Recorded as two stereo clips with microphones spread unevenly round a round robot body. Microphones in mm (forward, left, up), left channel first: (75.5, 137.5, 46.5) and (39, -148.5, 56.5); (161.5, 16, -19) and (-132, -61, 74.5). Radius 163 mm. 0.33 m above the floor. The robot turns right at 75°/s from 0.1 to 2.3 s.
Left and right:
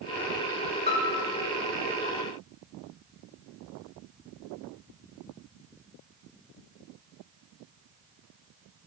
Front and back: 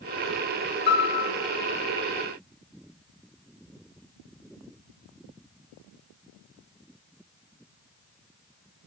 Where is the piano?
20° left, 1.5 m; by 1.3 s 55° left, 1.5 m.